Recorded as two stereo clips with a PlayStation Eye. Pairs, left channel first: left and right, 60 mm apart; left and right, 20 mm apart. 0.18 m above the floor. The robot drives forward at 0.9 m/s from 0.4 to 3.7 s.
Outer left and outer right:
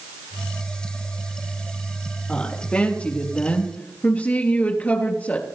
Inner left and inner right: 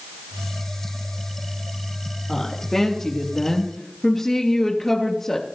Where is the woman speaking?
20° left (ahead or behind), 4.5 m; by 5.5 s 25° left (ahead or behind), 3.5 m.